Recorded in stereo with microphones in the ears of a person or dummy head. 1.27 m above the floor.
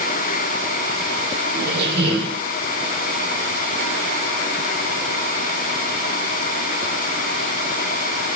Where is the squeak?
70° right (ahead or behind), 5.5 m.